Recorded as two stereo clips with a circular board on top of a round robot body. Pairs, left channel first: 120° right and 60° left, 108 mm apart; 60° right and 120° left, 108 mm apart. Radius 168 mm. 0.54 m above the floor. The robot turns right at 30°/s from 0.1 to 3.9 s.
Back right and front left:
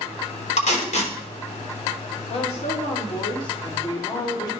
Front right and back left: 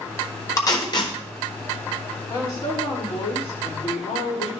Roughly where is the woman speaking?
Behind right.